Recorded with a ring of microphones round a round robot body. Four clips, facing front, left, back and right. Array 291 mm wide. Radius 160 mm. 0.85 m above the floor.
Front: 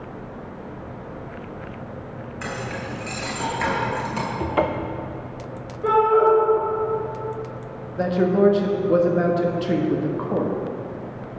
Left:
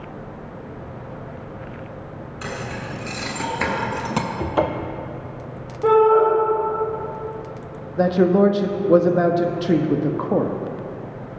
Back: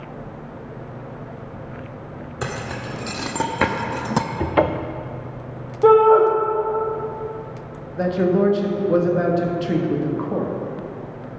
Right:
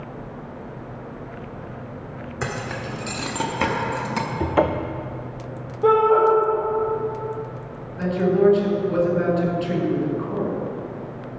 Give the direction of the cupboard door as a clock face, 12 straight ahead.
5 o'clock.